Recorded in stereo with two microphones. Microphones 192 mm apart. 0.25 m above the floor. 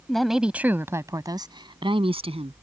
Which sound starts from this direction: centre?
A woman speaking, at 0.1 s.